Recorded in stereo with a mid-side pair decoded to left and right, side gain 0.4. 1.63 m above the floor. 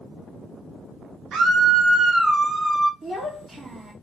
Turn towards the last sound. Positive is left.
turn(degrees=-55)